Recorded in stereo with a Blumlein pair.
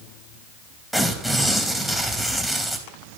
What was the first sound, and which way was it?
Tearing paper, 5° right.